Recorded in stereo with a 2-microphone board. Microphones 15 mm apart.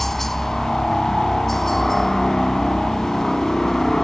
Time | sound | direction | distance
0.0 | a helicopter | 15° left (ahead or behind) | ?